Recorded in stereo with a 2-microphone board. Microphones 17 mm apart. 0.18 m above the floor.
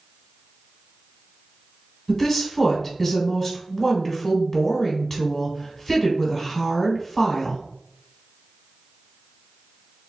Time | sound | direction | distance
2.1 | a woman speaking | 25° left (ahead or behind) | 1.2 m